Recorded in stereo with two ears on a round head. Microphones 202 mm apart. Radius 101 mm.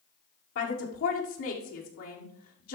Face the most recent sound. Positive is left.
turn(degrees=70)  # may be behind; listen again after turning